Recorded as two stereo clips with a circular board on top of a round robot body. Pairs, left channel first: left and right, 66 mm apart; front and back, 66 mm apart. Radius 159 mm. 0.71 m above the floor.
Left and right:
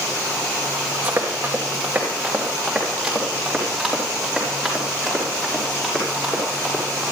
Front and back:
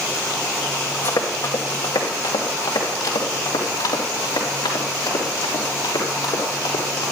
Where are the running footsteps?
30° right, 2.5 m; by 7.0 s 10° left, 7.5 m.